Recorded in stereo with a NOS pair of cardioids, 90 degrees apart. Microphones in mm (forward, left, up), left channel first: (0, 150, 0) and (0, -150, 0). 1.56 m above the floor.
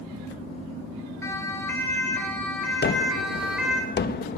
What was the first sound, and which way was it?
A siren, 10° left.